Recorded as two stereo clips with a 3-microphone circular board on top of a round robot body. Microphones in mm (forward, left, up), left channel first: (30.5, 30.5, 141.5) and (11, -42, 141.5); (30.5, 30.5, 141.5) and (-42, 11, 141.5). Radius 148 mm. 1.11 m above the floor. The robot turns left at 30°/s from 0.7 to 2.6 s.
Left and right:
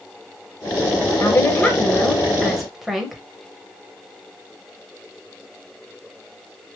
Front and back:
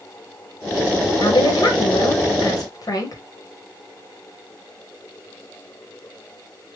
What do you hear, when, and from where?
1.2 s a woman speaking: 25° left, 1.3 m; by 3.2 s 20° right, 1.3 m